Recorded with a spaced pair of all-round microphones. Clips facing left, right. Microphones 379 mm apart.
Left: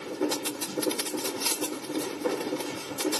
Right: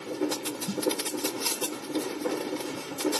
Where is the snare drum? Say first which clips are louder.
Even; 55° right (ahead or behind), 2 m.